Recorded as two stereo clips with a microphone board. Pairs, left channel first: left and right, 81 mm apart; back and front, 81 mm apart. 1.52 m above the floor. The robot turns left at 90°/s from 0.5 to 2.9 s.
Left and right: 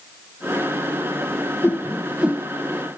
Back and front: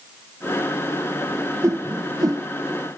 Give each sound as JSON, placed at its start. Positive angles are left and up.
{"t": 1.6, "sound": "a whoosh", "azimuth_deg": 40, "distance_m": 0.8}